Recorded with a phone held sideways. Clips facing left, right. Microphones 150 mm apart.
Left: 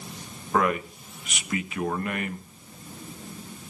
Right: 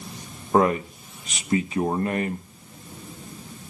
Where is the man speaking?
30° right (ahead or behind), 1.0 m.